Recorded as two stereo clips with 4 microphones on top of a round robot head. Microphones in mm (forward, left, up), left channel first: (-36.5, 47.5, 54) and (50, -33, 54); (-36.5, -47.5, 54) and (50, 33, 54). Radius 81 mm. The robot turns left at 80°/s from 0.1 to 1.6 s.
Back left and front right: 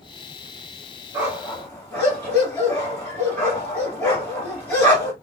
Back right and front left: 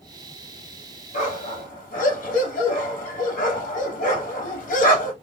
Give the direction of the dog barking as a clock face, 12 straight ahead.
4 o'clock.